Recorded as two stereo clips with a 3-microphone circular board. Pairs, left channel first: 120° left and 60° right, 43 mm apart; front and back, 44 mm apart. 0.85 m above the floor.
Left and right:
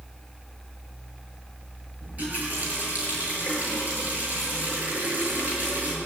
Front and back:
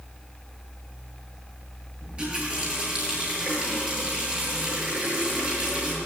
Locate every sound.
2.0 s a running tap: 115° right, 9 m